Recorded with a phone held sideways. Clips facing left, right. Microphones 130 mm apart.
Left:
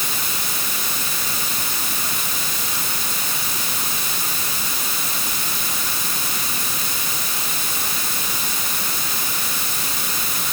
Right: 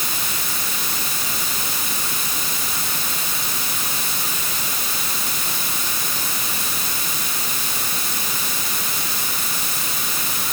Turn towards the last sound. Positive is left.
No sound to turn to.